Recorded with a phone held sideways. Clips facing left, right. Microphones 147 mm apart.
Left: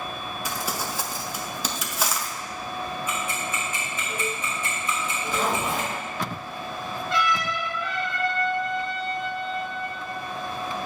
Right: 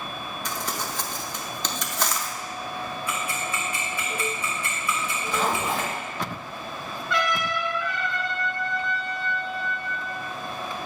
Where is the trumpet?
25° left (ahead or behind), 3 m.